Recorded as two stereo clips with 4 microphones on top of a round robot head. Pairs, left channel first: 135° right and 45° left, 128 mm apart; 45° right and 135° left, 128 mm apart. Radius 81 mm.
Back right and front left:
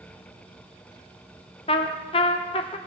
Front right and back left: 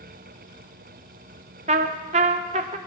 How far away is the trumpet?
About 0.7 m.